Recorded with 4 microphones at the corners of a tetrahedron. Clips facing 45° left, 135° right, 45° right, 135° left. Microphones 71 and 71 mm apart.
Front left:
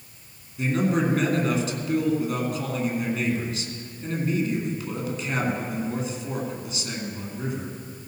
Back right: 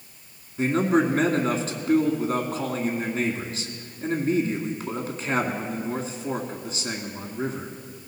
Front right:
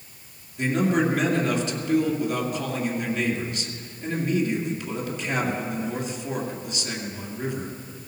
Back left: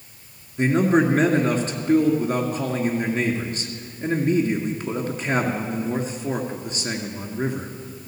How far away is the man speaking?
About 2 m.